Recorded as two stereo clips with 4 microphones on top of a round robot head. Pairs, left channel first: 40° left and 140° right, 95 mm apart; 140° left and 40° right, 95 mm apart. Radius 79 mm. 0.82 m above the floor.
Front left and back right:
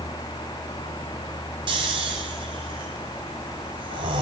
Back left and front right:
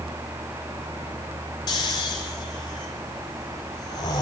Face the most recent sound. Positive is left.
turn(degrees=180)